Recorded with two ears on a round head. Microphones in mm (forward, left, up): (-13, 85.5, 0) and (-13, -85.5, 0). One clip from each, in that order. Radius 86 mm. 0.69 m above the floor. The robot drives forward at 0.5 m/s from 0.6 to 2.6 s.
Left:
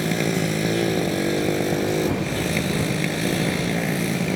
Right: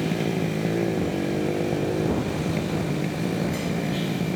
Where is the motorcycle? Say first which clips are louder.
Left 3 dB; 80° left; by 4.4 s 70° left (ahead or behind).